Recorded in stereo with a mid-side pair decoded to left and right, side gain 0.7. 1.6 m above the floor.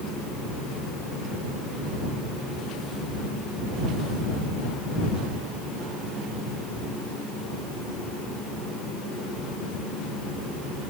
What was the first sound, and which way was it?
Only background noise.